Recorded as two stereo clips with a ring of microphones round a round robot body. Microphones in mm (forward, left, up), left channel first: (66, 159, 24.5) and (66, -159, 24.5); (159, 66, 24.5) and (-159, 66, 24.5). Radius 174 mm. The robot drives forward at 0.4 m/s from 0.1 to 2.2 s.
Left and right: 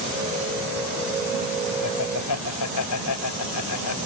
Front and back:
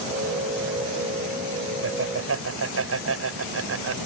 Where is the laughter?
135° left.